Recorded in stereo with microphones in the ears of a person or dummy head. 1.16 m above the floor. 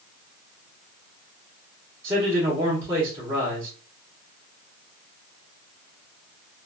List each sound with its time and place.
2.0 s a man speaking: 20° right (ahead or behind), 1.2 m